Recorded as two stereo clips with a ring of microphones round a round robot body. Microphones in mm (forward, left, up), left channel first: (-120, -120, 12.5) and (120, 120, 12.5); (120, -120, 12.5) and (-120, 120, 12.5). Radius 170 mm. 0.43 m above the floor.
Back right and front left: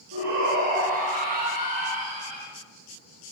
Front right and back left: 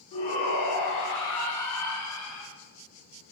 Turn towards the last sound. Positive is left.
turn(degrees=-20)